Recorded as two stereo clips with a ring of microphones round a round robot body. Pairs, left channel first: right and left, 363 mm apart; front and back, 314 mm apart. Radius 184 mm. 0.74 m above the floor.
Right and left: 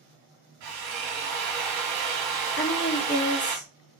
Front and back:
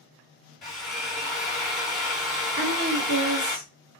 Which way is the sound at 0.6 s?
90° left.